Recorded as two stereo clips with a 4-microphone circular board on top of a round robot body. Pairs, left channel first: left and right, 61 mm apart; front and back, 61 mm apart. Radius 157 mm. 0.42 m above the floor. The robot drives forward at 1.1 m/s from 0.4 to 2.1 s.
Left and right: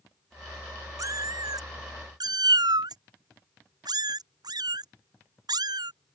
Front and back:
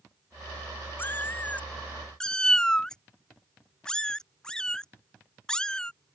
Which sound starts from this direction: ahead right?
A cat meowing, at 1.0 s.